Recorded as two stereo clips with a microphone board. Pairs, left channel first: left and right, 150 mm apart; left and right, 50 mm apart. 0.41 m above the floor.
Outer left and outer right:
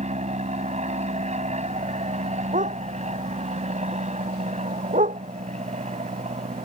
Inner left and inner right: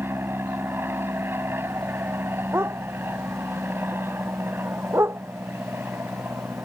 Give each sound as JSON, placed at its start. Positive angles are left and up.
{"t": 0.0, "sound": "an aircraft", "side_deg": -50}
{"t": 2.5, "sound": "a dog barking", "side_deg": -55}